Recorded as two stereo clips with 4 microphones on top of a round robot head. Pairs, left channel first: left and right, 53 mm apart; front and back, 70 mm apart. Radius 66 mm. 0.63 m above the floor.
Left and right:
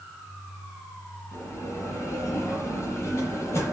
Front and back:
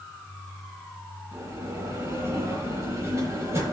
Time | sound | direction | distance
1.3 | a bell | 130° left | 9 m